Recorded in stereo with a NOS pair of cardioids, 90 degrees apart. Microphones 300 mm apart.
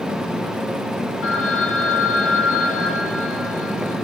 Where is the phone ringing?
45° left, 5.5 m.